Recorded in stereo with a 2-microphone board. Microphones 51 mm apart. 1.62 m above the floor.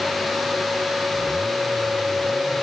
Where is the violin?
I don't hear a violin.